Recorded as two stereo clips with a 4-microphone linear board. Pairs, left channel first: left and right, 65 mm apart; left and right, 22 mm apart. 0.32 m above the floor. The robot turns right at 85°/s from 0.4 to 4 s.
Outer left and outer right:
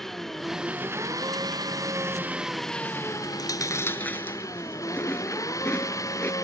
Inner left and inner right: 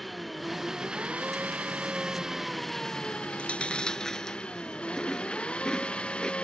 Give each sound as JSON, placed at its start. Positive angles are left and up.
{"t": 0.0, "sound": "an engine running", "azimuth_deg": 175}
{"t": 3.3, "sound": "chewing", "side_deg": 85}